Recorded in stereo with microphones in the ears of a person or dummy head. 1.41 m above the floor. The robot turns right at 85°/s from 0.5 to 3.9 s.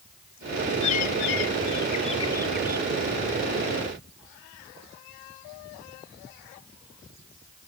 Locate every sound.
0.8 s a bird: 35° left; by 2.9 s 150° right